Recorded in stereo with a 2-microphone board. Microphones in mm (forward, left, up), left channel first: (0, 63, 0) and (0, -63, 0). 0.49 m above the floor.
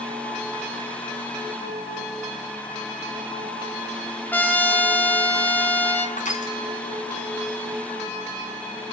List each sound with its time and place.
4.3 s a trumpet: 15° left (ahead or behind), 1.7 m
6.2 s crushing: 75° left (ahead or behind), 3 m